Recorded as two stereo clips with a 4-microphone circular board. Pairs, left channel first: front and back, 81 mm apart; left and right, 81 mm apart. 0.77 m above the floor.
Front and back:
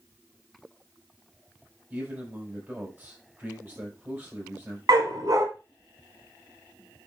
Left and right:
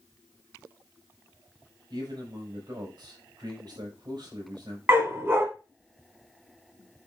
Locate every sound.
1.9 s a man speaking: 120° right, 4.5 m
4.9 s a dog barking: 150° right, 1.7 m